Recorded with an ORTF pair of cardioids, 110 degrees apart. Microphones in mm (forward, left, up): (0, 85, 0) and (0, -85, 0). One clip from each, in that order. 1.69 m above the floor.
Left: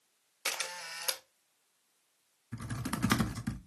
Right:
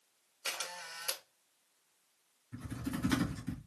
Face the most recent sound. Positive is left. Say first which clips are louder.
# left 3 dB
turn(degrees=55)